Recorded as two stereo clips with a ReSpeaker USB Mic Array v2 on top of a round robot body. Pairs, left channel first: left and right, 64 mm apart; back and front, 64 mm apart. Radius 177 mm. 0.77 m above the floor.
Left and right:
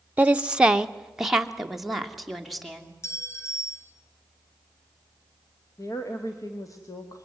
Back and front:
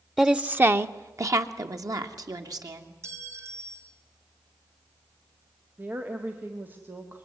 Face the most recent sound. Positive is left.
turn(degrees=60)